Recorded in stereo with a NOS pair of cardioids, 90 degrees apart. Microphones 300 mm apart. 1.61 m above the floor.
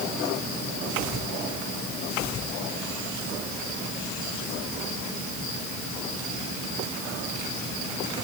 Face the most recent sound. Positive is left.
No sound to turn to.